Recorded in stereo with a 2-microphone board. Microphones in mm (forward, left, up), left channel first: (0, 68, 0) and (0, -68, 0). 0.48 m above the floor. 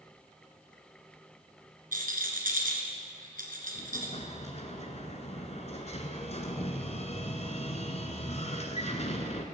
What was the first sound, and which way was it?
A rattle, 90° right.